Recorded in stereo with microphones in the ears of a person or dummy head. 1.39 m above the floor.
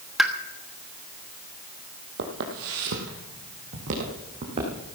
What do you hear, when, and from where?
0.2 s a pop: centre (ahead or behind), 1.2 m
2.2 s footsteps: 55° right (ahead or behind), 2.5 m; by 4.8 s 35° right (ahead or behind), 4 m